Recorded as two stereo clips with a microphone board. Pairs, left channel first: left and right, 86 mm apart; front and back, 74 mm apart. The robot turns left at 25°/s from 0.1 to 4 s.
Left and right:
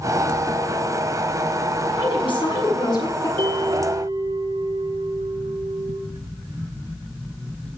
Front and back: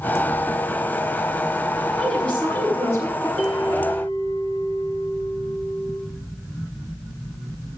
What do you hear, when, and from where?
2.0 s a woman speaking: 80° left, 6.5 m; by 3.3 s 50° left, 6.5 m
3.4 s a bell: 70° right, 7.5 m; by 6.0 s 85° right, 7.5 m